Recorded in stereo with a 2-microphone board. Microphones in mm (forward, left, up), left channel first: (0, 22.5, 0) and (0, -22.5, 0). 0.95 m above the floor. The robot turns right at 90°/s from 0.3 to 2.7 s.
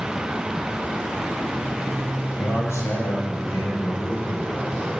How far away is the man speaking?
About 5.5 m.